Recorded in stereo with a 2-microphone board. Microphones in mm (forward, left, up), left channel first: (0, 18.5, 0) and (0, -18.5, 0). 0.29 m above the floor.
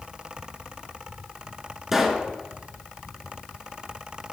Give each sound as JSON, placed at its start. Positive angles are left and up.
{"t": 1.9, "sound": "a pop", "side_deg": -10, "distance_m": 0.9}